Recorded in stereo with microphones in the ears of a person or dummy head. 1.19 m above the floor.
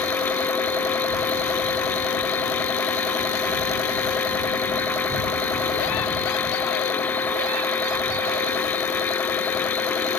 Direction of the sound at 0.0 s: 5° left (ahead or behind).